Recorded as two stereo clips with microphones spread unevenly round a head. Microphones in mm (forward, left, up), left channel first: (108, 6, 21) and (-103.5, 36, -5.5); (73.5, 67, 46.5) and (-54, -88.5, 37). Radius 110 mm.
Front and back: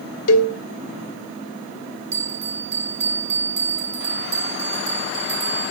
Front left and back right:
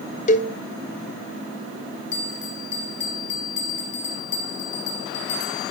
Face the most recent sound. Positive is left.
turn(degrees=110)